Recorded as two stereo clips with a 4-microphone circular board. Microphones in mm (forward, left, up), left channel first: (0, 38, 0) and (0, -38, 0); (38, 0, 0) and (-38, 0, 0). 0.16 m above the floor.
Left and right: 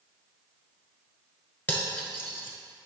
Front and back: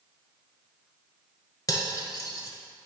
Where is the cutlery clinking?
30° left, 1.1 m.